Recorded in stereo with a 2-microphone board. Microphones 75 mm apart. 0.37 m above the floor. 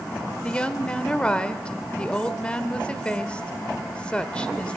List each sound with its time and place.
0.4 s a woman speaking: 15° left (ahead or behind), 1.4 m